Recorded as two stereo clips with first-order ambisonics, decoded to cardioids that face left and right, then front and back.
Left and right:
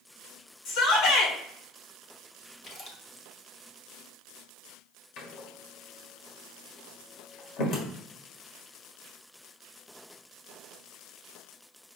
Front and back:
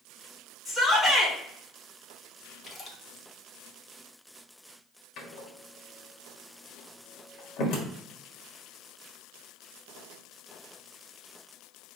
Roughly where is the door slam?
Ahead left.